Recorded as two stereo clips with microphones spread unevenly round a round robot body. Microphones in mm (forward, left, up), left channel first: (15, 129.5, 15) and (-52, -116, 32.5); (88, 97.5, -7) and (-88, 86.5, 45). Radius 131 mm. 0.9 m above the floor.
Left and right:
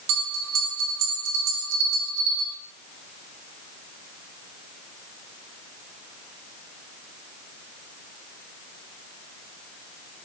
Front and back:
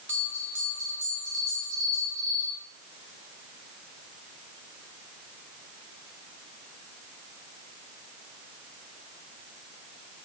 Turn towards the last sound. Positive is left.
turn(degrees=-85)